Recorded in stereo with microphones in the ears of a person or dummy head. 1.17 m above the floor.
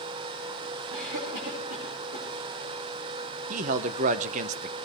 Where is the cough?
45° right (ahead or behind), 6 m.